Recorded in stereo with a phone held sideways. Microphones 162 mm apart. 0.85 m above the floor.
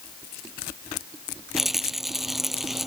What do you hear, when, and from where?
1.6 s a rattle: centre (ahead or behind)